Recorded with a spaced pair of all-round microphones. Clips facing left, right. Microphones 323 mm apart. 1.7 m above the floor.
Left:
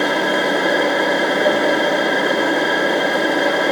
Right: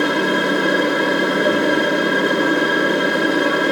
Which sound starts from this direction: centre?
A machine running, at 0.0 s.